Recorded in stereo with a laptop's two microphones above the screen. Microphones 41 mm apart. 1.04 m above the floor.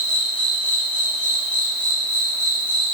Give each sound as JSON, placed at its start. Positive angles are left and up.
{"t": 0.0, "sound": "an insect", "side_deg": 35, "distance_m": 3.5}